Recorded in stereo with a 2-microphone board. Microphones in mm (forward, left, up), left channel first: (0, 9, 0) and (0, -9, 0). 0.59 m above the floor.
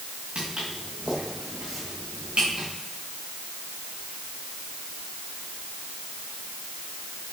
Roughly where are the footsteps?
Right.